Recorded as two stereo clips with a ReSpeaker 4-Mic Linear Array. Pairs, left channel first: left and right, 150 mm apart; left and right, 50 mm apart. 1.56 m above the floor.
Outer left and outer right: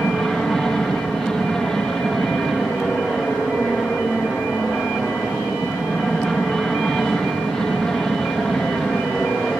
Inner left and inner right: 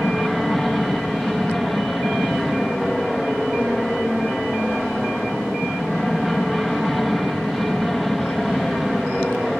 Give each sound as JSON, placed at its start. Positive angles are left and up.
{"t": 0.0, "sound": "an aircraft", "side_deg": 5}